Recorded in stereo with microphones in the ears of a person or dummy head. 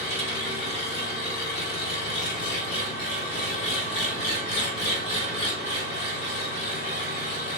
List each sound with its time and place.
0.0 s an engine running: 70° left (ahead or behind), 1.6 m